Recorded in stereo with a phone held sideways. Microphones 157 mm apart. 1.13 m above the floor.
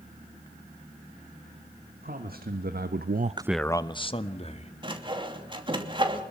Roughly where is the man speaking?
Right.